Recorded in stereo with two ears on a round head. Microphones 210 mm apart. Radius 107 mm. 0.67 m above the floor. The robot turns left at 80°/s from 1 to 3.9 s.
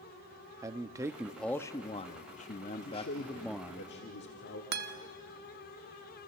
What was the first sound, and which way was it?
A man speaking, 155° right.